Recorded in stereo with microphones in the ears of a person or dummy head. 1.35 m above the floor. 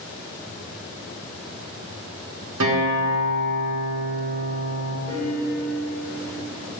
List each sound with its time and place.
2.6 s a guitar: 75° right (ahead or behind), 0.9 m
5.1 s a piano: 30° right (ahead or behind), 1.7 m